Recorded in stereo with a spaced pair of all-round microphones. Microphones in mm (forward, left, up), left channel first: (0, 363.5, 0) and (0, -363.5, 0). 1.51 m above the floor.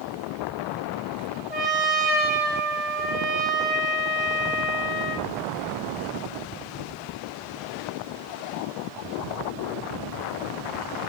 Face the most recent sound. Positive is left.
turn(degrees=0)  # may be behind; listen again after turning